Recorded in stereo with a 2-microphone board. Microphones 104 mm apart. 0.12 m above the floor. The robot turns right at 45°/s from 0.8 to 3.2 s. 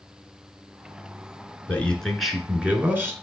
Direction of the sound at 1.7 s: 155° left.